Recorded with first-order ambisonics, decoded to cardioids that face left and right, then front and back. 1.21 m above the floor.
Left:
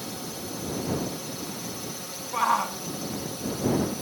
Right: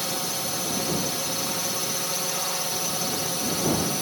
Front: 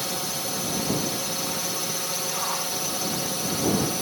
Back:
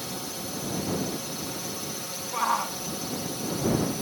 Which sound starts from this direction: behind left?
A shout, at 2.3 s.